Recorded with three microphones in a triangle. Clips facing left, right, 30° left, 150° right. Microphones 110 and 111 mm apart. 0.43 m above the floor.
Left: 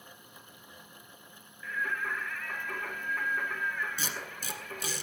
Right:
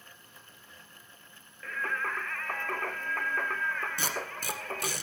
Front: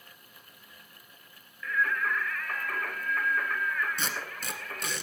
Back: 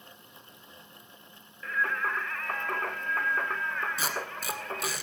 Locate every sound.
1.6 s singing: 100° right, 0.8 m
4.0 s tape being pulled: 65° right, 1.5 m